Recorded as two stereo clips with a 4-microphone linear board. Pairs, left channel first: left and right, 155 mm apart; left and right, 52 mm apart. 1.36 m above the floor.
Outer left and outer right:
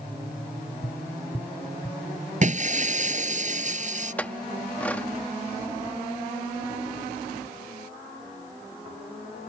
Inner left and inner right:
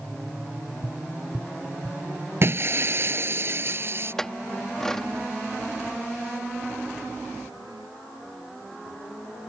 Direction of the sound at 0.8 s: 25° left (ahead or behind).